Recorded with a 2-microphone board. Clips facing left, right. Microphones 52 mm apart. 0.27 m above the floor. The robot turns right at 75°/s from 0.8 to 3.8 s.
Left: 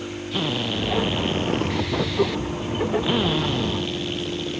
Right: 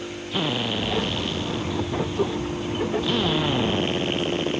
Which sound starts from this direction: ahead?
A drill, at 0.3 s.